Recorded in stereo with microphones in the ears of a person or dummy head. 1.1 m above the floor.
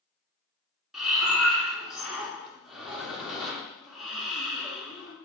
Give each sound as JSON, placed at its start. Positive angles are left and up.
{"t": 0.9, "sound": "breathing", "side_deg": 0, "distance_m": 2.0}